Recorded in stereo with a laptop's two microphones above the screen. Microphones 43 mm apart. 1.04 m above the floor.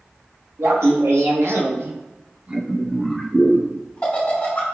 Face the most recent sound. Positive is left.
turn(degrees=35)  # may be behind; listen again after turning